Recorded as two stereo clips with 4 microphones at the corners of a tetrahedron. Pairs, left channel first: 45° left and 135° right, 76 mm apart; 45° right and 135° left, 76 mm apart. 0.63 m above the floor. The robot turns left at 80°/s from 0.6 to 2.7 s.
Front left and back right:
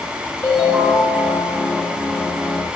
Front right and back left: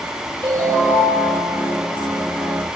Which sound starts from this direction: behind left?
A ringtone, at 0.4 s.